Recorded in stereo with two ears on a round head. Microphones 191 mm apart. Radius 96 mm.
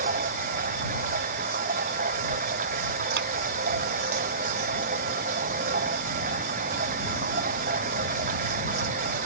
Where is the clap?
50° right (ahead or behind).